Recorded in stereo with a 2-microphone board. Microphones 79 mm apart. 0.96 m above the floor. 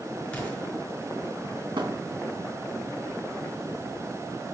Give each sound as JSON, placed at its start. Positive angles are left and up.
{"t": 0.3, "sound": "an explosion", "side_deg": 15, "distance_m": 5.0}
{"t": 1.8, "sound": "a thud", "side_deg": -80, "distance_m": 2.5}